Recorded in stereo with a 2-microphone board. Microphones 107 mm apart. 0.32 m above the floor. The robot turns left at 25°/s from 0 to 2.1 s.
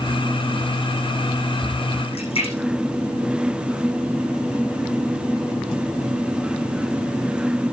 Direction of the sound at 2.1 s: 60° left (ahead or behind).